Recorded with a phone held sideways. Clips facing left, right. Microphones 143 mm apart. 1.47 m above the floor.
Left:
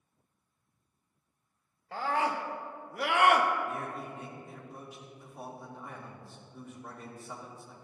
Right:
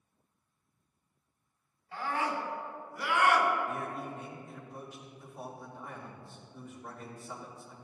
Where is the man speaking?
5° left (ahead or behind), 2.5 m.